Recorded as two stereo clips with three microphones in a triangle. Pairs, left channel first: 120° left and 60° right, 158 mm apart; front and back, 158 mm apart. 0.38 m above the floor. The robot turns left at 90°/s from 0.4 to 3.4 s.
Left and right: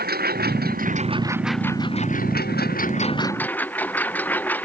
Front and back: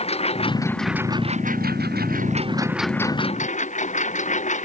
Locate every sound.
0.0 s a lawn mower: 50° right; by 4.7 s 40° left